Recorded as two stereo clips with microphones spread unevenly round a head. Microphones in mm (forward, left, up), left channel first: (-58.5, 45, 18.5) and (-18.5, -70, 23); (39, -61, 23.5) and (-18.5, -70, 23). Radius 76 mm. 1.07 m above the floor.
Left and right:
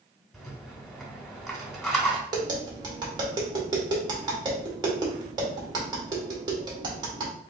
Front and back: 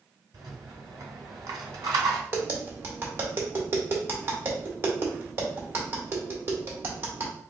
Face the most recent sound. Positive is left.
turn(degrees=-125)